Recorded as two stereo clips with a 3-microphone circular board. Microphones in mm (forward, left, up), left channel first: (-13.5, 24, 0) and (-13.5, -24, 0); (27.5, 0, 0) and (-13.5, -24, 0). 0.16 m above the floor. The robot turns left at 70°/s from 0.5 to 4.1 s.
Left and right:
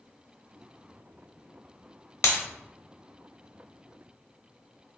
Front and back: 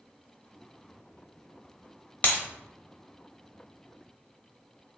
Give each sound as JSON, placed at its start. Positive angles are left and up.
{"t": 2.2, "sound": "breaking glass", "azimuth_deg": 85, "distance_m": 1.4}